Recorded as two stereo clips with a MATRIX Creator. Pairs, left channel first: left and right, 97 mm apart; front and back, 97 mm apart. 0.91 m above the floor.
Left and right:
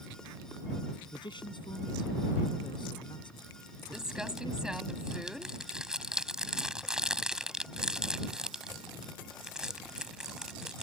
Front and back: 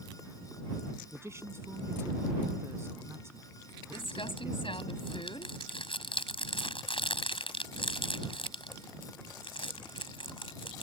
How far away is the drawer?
I don't hear a drawer.